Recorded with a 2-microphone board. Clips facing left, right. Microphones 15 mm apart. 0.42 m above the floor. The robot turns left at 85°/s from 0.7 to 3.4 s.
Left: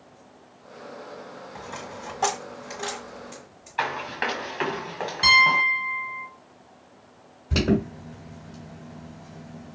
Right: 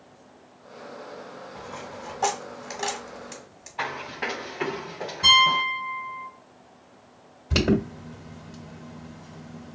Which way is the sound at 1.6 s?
70° left (ahead or behind).